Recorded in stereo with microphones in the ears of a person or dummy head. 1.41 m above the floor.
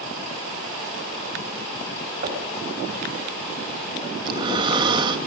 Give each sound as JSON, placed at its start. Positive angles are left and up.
{"t": 2.2, "sound": "knocking", "side_deg": -45, "distance_m": 5.5}
{"t": 4.2, "sound": "breathing", "side_deg": -30, "distance_m": 1.6}